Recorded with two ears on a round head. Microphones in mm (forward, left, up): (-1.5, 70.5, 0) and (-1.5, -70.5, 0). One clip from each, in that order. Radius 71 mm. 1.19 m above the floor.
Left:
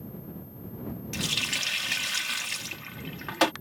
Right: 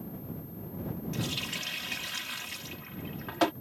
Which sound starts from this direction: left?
A running tap, at 1.1 s.